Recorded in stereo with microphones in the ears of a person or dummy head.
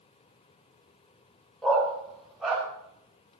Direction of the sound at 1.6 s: Centre (ahead or behind).